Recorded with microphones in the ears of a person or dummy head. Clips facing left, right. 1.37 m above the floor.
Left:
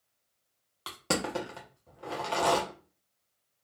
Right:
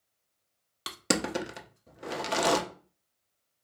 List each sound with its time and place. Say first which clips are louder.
0.9 s crushing: right 2 dB; 25° right (ahead or behind), 0.5 m